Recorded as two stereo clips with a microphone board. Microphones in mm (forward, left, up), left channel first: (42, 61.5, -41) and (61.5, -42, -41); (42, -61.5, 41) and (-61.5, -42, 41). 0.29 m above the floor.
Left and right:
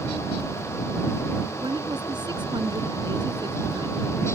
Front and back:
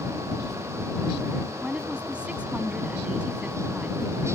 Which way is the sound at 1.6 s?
110° right.